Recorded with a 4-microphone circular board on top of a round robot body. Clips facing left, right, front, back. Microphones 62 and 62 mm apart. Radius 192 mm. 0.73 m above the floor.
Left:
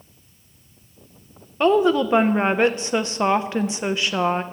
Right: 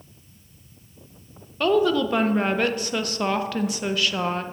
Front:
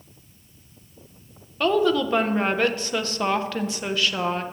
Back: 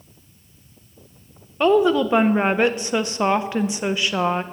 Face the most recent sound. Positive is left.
turn(degrees=130)